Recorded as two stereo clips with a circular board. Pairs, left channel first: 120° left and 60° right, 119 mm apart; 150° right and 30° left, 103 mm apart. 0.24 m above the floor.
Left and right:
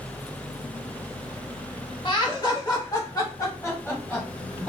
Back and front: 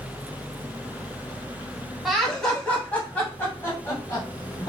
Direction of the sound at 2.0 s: 120° left.